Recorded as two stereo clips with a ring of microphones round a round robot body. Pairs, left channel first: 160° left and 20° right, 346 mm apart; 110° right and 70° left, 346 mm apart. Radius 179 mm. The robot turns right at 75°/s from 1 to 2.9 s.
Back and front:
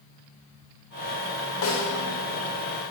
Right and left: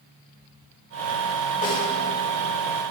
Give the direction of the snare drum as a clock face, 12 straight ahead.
6 o'clock.